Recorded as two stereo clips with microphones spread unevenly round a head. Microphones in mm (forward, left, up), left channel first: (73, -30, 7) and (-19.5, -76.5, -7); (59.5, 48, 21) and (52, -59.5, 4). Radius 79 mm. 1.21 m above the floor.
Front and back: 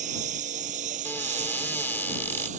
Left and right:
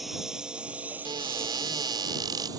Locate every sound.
0.0 s a lawn mower: 175° left; by 2.6 s 165° right
1.1 s a cupboard door: 45° right